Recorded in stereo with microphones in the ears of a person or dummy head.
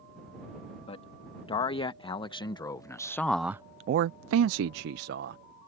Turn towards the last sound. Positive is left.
turn(degrees=-55)  # may be behind; listen again after turning